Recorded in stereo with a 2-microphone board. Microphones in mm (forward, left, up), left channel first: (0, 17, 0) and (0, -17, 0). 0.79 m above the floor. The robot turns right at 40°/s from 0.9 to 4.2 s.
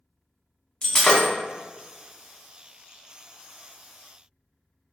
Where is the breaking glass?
30° left (ahead or behind), 0.9 m; by 1.3 s 20° left (ahead or behind), 0.9 m.